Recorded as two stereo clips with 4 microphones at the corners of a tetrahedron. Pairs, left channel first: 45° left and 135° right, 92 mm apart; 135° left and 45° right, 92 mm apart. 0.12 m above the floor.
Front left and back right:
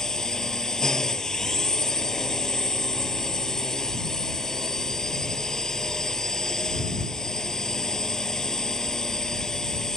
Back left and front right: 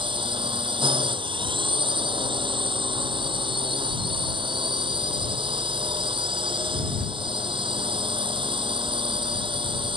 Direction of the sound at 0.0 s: 40° right.